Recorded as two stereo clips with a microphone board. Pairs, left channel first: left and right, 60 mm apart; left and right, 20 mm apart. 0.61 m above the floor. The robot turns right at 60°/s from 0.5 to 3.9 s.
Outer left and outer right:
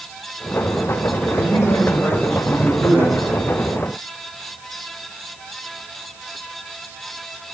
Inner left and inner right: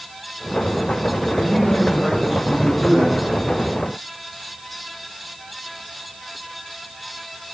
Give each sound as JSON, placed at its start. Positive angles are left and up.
{"t": 1.3, "sound": "a man speaking", "azimuth_deg": 110, "distance_m": 3.0}